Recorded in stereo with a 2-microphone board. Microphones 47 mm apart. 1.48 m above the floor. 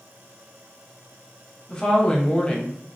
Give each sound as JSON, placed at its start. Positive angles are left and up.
{"t": 1.7, "sound": "a woman speaking", "side_deg": 15, "distance_m": 0.7}